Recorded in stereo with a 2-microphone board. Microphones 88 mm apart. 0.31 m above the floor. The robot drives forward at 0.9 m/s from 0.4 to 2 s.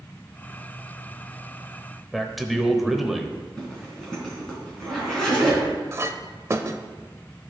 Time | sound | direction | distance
2.1 | a man speaking | centre (ahead or behind) | 0.9 m
3.6 | a zipper | 5° left (ahead or behind) | 3.5 m
5.9 | a clink | 30° right (ahead or behind) | 0.6 m